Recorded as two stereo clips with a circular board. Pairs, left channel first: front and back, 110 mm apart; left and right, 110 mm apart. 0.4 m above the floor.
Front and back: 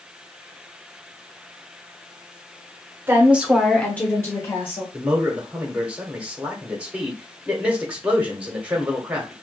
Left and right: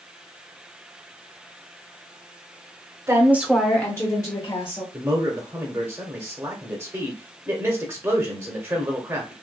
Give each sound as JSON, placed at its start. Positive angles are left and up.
{"t": 3.1, "sound": "a woman speaking", "azimuth_deg": -125, "distance_m": 0.9}
{"t": 4.9, "sound": "a man speaking", "azimuth_deg": -115, "distance_m": 0.9}